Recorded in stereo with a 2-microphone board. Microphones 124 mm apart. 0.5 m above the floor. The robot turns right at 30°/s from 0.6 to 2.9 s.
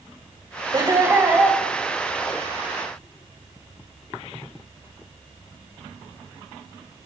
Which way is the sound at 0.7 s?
35° right (ahead or behind).